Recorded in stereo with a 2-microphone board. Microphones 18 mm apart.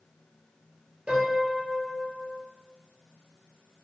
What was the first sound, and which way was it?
A piano, 80° right.